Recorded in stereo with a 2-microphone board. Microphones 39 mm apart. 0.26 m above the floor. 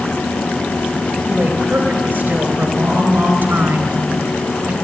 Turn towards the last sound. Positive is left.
turn(degrees=-60)  # may be behind; listen again after turning